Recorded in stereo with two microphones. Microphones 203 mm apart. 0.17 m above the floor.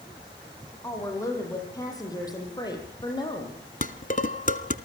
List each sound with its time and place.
0.8 s a woman speaking: 15° left (ahead or behind), 8.5 m; by 3.6 s 25° left (ahead or behind), 6.5 m
3.8 s dishes clattering: 40° left (ahead or behind), 1.2 m